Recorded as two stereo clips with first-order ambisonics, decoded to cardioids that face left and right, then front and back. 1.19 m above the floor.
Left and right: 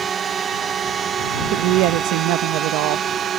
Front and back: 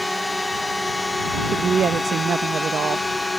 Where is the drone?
80° right; by 3.4 s 75° right.